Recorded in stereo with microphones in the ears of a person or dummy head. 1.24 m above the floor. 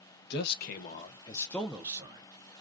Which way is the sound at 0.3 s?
60° left (ahead or behind).